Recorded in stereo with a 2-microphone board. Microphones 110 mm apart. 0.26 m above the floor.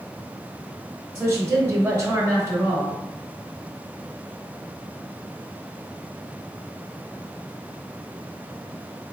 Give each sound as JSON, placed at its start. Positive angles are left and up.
{"t": 1.1, "sound": "a woman speaking", "side_deg": -25, "distance_m": 1.0}